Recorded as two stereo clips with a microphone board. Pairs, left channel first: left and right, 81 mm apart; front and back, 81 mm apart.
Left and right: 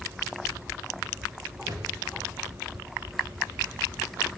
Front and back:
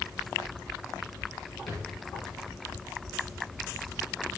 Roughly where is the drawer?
Ahead right.